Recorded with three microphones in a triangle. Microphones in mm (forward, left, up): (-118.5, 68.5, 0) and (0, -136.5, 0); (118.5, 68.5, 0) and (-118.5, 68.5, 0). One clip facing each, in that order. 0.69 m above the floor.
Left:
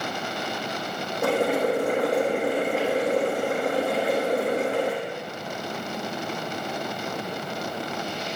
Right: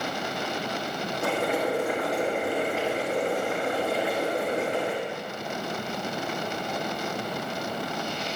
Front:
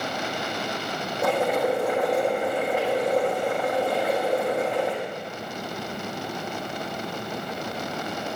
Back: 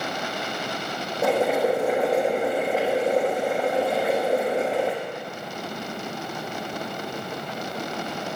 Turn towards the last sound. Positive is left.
turn(degrees=95)